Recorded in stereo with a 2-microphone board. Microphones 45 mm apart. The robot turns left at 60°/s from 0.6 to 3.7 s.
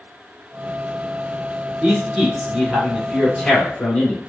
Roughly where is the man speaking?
Centre.